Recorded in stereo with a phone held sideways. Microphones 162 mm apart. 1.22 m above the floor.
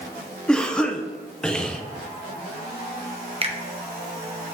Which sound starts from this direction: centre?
A cough, at 0.5 s.